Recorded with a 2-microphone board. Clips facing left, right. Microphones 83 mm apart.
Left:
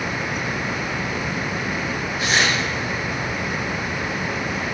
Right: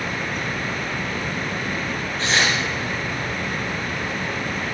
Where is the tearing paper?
10° left (ahead or behind), 3.5 m.